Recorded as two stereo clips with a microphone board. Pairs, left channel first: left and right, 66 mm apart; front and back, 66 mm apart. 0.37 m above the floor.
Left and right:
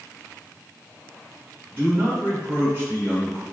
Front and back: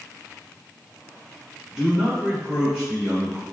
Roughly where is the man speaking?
Right.